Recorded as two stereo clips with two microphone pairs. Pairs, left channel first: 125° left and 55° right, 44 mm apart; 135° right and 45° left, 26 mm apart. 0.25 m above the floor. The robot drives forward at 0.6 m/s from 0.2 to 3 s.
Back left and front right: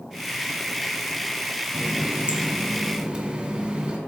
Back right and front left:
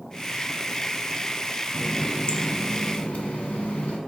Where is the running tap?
85° right, 1.5 m; by 4.0 s 120° right, 1.6 m.